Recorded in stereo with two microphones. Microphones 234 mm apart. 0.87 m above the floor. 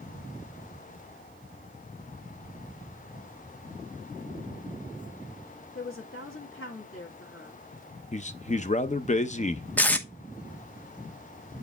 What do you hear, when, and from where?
5.8 s a woman speaking: 70° left (ahead or behind), 2 m
8.1 s a man speaking: 30° left (ahead or behind), 0.7 m
9.8 s tape being pulled: 5° left (ahead or behind), 0.9 m